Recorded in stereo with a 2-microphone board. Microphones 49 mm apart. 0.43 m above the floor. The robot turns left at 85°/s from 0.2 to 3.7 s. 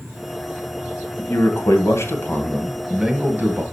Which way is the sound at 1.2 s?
140° left.